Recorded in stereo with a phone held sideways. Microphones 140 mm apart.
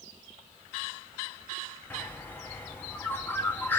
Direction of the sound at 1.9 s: 15° left (ahead or behind).